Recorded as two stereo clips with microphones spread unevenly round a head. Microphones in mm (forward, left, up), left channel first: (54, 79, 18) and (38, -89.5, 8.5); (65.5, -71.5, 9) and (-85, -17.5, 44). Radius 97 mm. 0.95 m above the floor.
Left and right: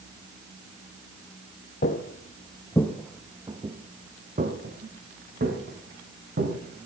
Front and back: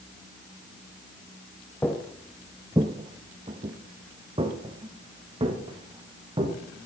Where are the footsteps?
70° left, 1.4 m; by 6.5 s 145° right, 4.5 m.